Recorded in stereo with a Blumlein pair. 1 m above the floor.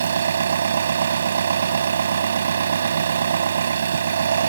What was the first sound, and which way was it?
An engine running, 70° right.